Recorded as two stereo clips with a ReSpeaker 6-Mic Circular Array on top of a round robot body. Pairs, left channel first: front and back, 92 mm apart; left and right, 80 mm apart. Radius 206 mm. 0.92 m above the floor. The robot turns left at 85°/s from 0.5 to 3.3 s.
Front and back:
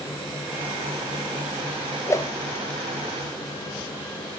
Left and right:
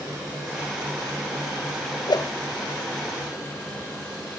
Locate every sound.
2.1 s a whoosh: 65° left, 1.4 m; by 2.3 s 45° left, 1.4 m